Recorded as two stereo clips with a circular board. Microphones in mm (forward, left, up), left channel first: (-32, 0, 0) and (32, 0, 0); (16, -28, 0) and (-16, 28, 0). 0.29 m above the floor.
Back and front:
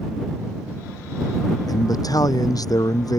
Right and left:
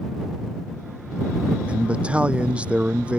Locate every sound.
1.7 s a man speaking: 170° right